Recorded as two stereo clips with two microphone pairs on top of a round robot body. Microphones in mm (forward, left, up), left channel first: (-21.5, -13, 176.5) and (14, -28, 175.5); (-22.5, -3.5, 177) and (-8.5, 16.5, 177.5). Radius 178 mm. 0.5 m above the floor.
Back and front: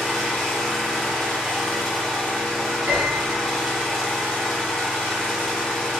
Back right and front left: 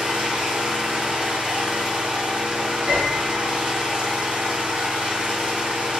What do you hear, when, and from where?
0.0 s an engine running: 65° left, 1.8 m
2.9 s a piano: 15° left, 1.2 m